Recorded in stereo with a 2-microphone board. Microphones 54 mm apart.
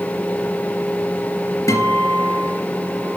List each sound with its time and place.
1.7 s a guitar: 85° left, 3 m